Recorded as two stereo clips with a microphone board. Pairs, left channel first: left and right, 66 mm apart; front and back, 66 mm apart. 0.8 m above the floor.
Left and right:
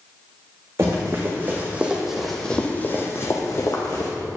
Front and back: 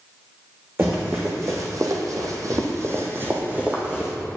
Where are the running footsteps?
130° right, 2.5 m; by 4.1 s 110° left, 2.5 m.